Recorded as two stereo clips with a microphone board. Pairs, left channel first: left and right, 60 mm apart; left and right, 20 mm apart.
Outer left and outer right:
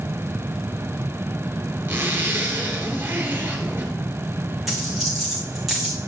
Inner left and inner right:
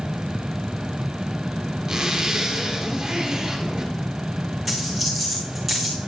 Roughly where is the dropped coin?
Centre.